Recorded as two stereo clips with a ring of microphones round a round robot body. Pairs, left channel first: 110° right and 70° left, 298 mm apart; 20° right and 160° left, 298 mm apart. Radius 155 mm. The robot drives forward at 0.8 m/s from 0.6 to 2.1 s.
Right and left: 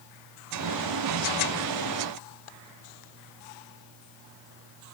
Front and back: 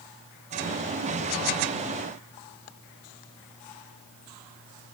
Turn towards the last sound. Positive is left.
No sound to turn to.